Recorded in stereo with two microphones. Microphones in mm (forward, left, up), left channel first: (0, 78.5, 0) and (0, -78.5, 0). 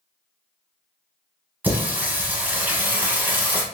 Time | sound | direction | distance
1.6 | singing | 10° right (ahead or behind) | 0.8 m